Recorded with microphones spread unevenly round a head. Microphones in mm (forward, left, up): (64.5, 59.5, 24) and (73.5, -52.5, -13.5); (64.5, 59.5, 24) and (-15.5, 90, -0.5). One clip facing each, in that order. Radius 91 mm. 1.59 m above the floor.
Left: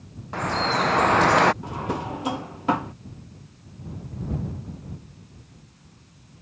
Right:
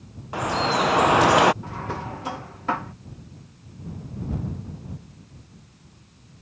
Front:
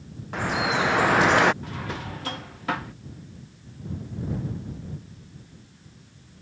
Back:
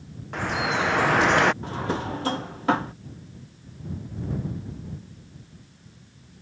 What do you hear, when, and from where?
0.3 s dripping: 20° left
1.6 s a drawer: 105° left